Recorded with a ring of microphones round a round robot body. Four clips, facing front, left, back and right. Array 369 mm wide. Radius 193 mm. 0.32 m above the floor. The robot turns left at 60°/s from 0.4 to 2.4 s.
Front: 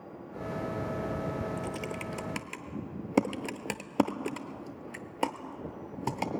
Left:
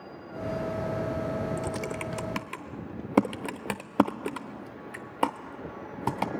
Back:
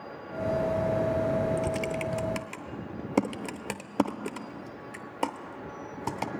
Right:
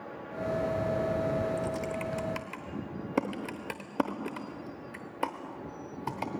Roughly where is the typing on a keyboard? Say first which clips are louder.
Even, back 7 dB; behind left.